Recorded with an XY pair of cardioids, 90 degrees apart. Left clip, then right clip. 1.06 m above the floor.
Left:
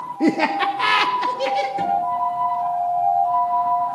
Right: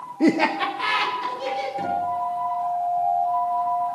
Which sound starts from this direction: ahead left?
A guitar, at 1.8 s.